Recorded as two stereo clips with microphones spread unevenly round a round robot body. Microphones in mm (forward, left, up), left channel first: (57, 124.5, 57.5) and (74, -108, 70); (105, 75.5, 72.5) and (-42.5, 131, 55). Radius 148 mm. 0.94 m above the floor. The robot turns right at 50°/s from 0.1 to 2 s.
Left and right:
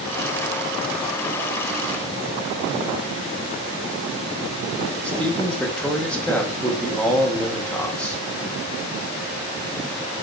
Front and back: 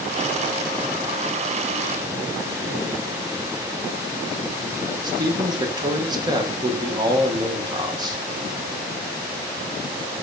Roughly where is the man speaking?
Behind.